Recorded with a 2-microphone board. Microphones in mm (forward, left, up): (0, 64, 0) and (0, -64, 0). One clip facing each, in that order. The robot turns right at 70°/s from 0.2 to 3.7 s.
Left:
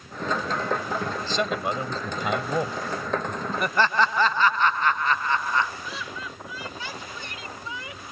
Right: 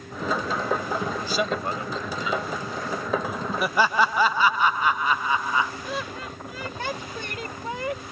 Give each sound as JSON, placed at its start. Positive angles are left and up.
{"t": 1.2, "sound": "a man speaking", "azimuth_deg": -15}
{"t": 3.6, "sound": "laughter", "side_deg": -5}
{"t": 5.8, "sound": "laughter", "side_deg": -55}